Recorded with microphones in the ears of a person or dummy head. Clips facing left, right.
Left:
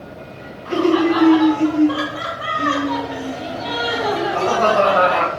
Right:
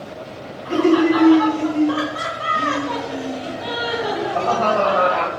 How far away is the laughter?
About 3 m.